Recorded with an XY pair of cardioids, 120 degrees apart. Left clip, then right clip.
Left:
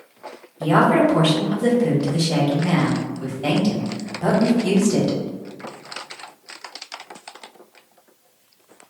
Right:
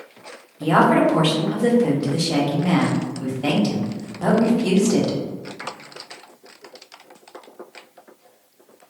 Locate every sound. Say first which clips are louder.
0.6 s a woman speaking: even; 15° right, 1.0 m